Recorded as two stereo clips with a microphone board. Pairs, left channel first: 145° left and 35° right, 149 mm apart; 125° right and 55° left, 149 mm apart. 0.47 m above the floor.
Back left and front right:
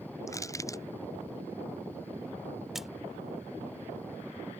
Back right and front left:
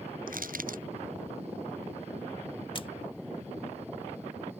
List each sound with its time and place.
0.3 s crushing: 75° left
2.8 s a splash: 120° right